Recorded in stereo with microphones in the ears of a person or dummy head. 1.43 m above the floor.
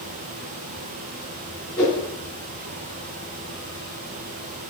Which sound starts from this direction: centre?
A whoosh, at 1.8 s.